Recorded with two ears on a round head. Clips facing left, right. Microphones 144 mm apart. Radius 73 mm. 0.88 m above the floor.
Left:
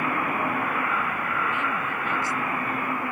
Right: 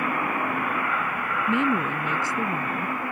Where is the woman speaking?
70° right (ahead or behind); by 3.0 s 75° right (ahead or behind).